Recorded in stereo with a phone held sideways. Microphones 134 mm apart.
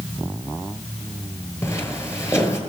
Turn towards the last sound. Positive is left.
turn(degrees=20)  # may be behind; listen again after turning